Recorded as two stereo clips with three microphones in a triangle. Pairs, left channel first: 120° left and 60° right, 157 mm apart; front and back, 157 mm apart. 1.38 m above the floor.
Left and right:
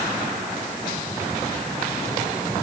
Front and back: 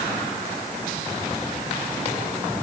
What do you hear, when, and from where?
Only background noise.